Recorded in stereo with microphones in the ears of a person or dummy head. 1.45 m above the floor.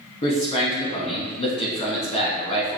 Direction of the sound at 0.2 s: 35° left (ahead or behind).